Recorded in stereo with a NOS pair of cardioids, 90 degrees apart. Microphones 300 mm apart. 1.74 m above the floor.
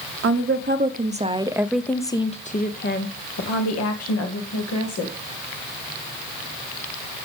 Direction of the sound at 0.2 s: 45° right.